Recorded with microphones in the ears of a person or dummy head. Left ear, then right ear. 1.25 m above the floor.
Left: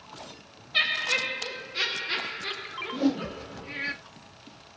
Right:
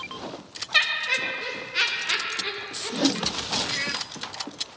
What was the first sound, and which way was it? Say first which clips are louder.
Laughter: right 2 dB; 70° right (ahead or behind).